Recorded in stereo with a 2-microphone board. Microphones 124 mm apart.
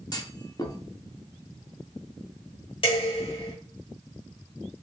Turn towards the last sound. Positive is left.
turn(degrees=45)  # may be behind; listen again after turning